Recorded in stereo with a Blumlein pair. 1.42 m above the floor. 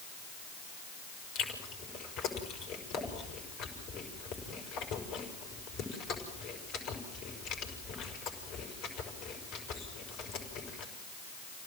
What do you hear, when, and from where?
1.4 s chewing: 35° left, 6 m